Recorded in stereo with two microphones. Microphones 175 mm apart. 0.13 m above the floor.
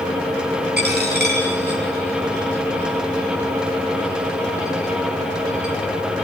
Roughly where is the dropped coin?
Right.